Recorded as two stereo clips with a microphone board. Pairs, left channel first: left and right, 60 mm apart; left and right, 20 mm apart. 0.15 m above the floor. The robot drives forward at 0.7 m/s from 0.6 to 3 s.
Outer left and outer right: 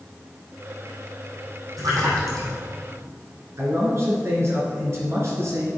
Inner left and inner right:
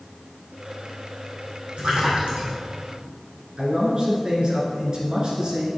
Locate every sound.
1.8 s a splash: 80° right, 3.5 m; by 2.5 s 75° right (ahead or behind), 3.5 m
3.6 s a man speaking: 50° right (ahead or behind), 2.5 m